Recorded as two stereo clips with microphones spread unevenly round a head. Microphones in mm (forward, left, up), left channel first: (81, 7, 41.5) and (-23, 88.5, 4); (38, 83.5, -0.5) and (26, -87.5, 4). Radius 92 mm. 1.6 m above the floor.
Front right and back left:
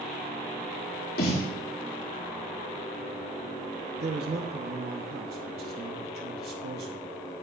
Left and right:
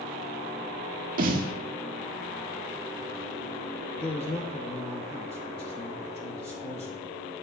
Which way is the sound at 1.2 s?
55° right.